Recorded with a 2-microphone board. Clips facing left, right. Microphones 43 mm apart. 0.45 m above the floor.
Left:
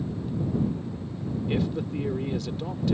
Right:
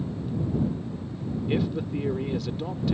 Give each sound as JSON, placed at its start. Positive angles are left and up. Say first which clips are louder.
{"t": 1.5, "sound": "a man speaking", "louder": "right 1 dB", "side_deg": -5}